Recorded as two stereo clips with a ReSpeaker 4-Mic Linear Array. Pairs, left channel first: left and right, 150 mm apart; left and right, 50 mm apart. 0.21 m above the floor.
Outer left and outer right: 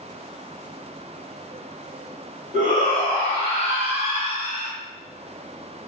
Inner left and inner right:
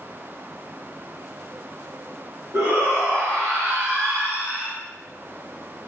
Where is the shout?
50° right (ahead or behind), 1.6 m; by 4.7 s 30° right (ahead or behind), 1.9 m.